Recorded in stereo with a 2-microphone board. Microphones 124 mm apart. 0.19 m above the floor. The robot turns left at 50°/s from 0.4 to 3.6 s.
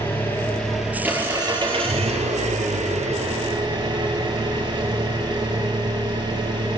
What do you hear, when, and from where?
0.0 s an engine running: 20° left, 4 m; by 6.8 s 140° right, 4 m